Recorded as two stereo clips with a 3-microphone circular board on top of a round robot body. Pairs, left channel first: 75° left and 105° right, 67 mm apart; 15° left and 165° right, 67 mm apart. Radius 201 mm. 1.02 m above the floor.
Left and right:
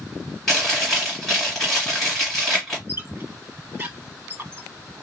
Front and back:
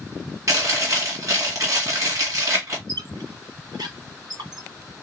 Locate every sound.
0.5 s chewing: 160° left, 1.9 m
2.9 s a squeak: 165° right, 1.9 m